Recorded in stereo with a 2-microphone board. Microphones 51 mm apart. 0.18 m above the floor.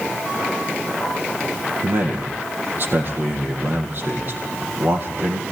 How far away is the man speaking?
About 5.5 m.